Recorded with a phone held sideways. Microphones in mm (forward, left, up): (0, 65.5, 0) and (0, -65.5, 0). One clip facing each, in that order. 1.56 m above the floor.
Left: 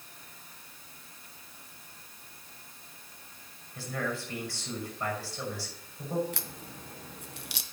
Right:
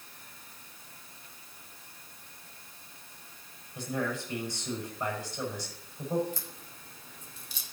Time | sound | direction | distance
3.8 | a man speaking | 15° right (ahead or behind) | 6.5 m
6.3 | a crack | 65° left (ahead or behind) | 0.8 m